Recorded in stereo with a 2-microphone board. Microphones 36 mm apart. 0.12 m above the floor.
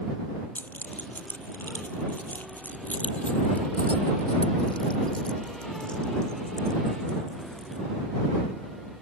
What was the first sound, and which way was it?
Keys jangling, 55° left (ahead or behind).